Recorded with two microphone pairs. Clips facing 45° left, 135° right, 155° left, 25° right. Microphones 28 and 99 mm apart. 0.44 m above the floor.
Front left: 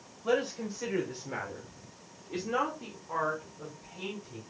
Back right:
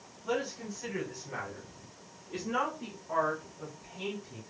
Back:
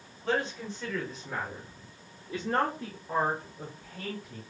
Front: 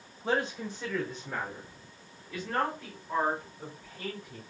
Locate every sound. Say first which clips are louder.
0.2 s a man speaking: front left 4 dB, even; 35° left, 1.5 m; by 4.4 s 145° left, 2 m